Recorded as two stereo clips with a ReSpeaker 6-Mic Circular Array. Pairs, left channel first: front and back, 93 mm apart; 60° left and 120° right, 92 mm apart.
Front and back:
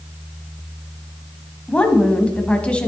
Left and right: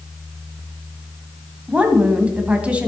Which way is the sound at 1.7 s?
60° right.